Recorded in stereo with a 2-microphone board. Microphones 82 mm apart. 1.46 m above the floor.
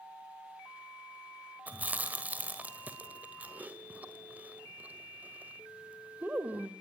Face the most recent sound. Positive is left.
turn(degrees=-20)  # may be behind; listen again after turning